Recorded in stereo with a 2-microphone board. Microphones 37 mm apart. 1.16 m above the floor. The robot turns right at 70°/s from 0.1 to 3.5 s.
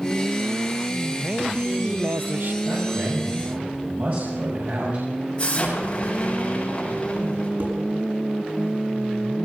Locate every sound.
1.2 s a man speaking: 165° right, 0.9 m; by 2.5 s 70° right, 0.9 m
2.6 s a man speaking: 110° right, 7 m; by 5.1 s 50° right, 7 m
5.4 s an explosion: 25° left (ahead or behind), 8.5 m
7.6 s dishes clattering: 80° right, 8 m